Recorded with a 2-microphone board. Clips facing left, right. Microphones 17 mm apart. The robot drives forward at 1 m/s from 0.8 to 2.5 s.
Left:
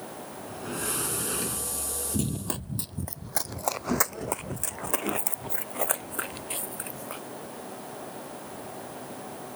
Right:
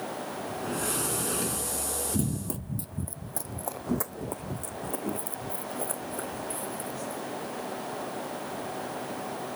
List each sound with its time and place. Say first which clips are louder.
0.5 s a sliding door: right 1 dB; 5° left (ahead or behind)
2.1 s running footsteps: left 3 dB; 50° left (ahead or behind); by 7.2 s 75° left (ahead or behind)